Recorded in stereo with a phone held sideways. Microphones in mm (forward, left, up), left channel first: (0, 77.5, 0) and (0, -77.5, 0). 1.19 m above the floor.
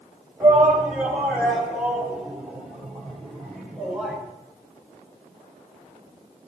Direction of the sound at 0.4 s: 10° right (ahead or behind).